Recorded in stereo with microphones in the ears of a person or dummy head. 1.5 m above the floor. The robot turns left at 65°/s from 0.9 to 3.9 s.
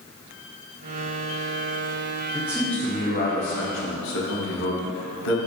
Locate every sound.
2.3 s a man speaking: 165° right, 0.8 m; by 5.4 s 95° left, 0.8 m